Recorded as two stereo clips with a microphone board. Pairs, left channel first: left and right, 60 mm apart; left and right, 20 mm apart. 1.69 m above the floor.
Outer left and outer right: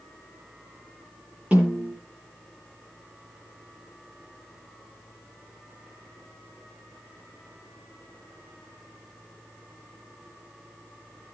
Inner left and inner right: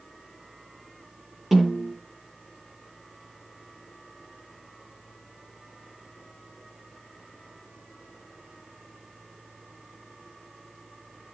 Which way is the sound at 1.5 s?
20° right (ahead or behind).